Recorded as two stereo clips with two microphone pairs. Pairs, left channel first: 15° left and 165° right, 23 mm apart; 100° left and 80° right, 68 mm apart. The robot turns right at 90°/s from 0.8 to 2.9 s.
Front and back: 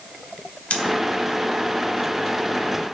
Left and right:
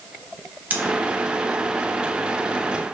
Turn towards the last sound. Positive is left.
turn(degrees=175)